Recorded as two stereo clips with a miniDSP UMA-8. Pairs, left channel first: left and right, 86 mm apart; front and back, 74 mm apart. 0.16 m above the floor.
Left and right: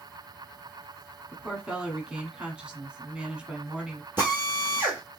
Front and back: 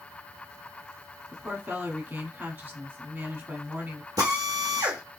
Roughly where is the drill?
Behind right.